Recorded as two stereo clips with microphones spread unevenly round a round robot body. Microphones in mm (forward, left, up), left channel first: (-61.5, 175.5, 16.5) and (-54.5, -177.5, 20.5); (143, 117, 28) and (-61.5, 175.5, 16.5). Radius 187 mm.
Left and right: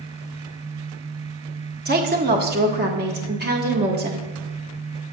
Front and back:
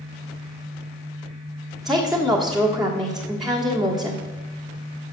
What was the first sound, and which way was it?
A woman speaking, 115° right.